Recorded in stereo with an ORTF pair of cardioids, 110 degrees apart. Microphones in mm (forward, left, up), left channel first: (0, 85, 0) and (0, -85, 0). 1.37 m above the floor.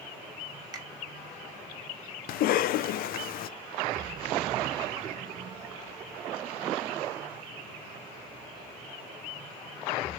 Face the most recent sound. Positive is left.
turn(degrees=65)